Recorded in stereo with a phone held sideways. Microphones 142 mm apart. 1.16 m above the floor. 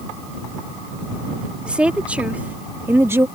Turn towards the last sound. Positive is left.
turn(degrees=-20)  # may be behind; listen again after turning